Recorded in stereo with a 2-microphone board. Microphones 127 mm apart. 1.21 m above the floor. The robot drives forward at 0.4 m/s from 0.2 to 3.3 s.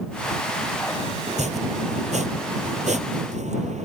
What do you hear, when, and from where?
1.3 s chopping: 60° right (ahead or behind); by 3.8 s 65° right (ahead or behind)